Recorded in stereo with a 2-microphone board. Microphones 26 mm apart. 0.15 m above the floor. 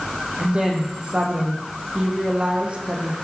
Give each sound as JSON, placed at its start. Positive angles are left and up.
{"t": 0.4, "sound": "a woman speaking", "side_deg": -45, "distance_m": 7.0}